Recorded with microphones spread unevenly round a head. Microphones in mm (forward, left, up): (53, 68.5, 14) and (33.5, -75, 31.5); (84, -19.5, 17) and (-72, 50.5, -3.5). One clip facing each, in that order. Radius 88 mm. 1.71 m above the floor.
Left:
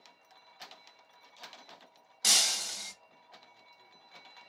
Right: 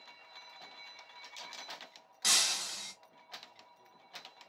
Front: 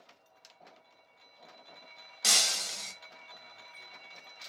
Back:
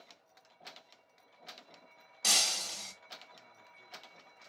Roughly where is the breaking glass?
Ahead left.